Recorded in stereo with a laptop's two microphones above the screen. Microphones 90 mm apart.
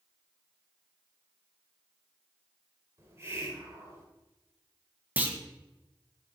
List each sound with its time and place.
3.0 s a hiss: 30° right (ahead or behind), 1.2 m
5.2 s a clunk: 20° right (ahead or behind), 0.9 m